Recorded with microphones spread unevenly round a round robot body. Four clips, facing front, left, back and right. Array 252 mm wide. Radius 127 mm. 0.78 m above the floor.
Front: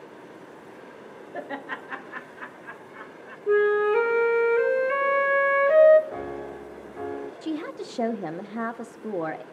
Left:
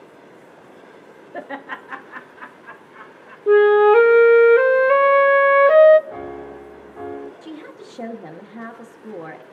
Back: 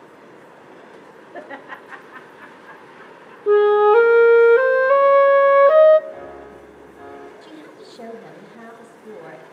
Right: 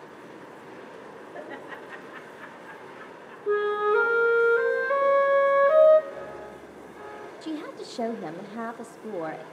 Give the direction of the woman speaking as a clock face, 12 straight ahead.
12 o'clock.